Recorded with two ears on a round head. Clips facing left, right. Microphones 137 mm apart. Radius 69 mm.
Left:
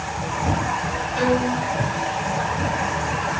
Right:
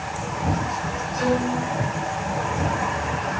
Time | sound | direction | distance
1.1 | a violin | 85° left | 7 m